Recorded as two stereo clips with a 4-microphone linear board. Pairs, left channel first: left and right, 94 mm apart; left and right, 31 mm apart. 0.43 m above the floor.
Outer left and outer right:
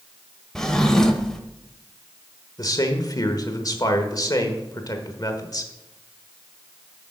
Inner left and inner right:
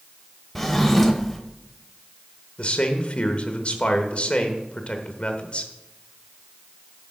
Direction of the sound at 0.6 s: 5° left (ahead or behind).